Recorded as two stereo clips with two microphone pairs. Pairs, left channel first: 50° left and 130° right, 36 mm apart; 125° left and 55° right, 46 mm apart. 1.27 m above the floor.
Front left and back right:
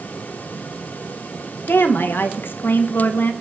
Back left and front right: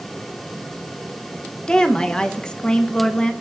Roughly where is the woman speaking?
Ahead left.